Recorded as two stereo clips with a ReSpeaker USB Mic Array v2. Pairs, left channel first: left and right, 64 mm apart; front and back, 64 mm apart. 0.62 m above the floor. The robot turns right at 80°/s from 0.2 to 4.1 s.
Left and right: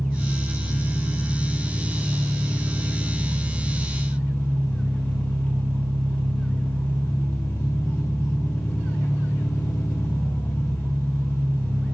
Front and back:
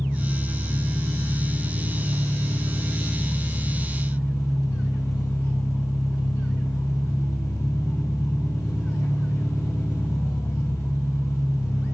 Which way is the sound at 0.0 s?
75° left.